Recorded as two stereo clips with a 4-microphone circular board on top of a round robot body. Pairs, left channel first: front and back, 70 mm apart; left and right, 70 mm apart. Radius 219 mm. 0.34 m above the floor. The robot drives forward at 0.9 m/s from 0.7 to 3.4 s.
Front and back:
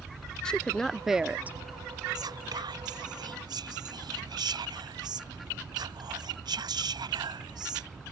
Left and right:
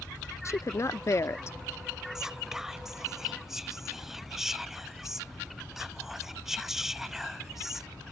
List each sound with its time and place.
0.5 s a woman speaking: 75° left; by 1.6 s 125° left
2.1 s whispering: 175° right